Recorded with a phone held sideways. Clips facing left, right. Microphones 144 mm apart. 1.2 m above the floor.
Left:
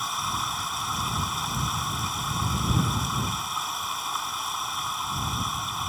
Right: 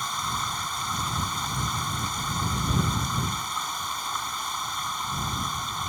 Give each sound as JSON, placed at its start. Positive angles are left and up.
{"t": 0.0, "sound": "running water", "side_deg": 5}